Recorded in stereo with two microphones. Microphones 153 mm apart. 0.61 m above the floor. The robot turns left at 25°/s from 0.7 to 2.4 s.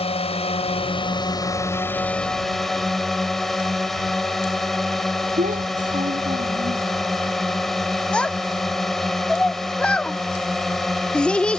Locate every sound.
0.0 s a drone: 45° left; by 11.6 s straight ahead
5.4 s a child speaking: 60° right (ahead or behind)
8.1 s a child speaking: 5° left (ahead or behind)